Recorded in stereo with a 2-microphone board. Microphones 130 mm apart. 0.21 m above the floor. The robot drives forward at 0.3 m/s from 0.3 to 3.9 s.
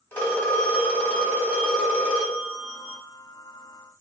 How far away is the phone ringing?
About 0.7 m.